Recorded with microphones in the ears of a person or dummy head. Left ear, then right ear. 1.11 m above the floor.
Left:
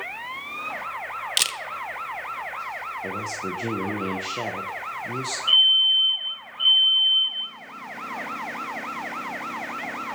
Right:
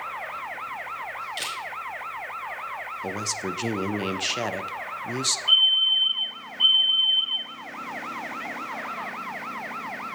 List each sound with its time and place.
1.4 s a camera shutter: 40° left (ahead or behind), 0.6 m
3.0 s a man speaking: 35° right (ahead or behind), 0.6 m
5.5 s a fire alarm: 75° left (ahead or behind), 5 m